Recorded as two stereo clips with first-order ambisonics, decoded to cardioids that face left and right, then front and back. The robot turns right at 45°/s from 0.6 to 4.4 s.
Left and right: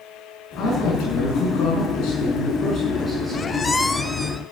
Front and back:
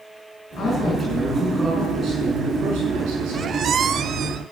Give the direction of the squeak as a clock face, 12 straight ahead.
7 o'clock.